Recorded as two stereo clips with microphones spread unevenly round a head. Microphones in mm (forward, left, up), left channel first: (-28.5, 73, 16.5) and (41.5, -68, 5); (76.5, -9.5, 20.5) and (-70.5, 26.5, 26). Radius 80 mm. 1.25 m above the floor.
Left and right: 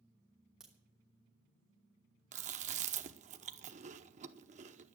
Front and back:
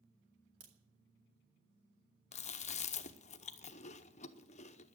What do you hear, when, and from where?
0.6 s a crack: 150° right, 2.5 m
2.3 s chewing: 40° right, 0.8 m